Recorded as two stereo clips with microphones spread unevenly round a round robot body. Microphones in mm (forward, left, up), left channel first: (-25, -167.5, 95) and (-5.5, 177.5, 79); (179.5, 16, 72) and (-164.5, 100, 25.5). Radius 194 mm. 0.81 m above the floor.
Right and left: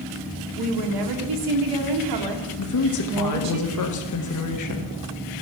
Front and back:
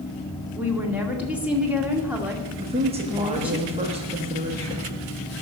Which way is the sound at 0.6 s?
80° left.